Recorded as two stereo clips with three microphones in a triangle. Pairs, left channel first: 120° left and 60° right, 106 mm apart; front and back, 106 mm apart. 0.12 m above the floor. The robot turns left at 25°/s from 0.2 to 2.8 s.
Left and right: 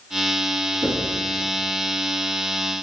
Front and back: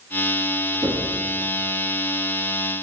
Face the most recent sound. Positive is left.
turn(degrees=180)